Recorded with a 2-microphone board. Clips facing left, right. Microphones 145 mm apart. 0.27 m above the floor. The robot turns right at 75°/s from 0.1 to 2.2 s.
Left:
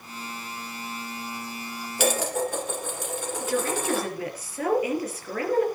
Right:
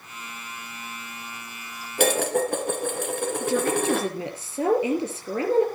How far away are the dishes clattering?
About 2.5 m.